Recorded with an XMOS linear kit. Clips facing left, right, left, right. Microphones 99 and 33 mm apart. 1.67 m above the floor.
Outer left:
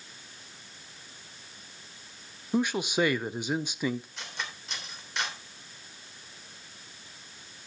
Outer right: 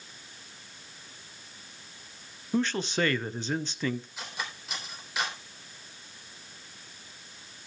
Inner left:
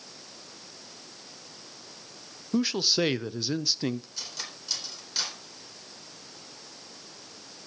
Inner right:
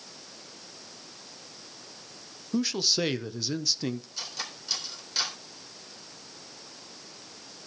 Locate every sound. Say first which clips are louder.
2.5 s a man speaking: outer left 1 dB, inner left 2 dB; 15° left (ahead or behind), 0.6 m
4.2 s cutlery clinking: outer right 1 dB, inner right 2 dB; 5° right (ahead or behind), 3 m